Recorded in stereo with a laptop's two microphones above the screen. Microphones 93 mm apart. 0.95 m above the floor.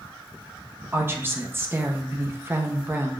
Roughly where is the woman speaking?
Right.